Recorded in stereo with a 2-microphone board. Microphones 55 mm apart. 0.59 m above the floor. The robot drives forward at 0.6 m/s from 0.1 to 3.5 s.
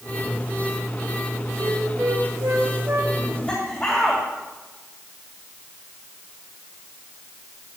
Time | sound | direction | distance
1.6 | a flute | 70° right (ahead or behind) | 3.5 m
3.2 | laughter | 15° left (ahead or behind) | 2.5 m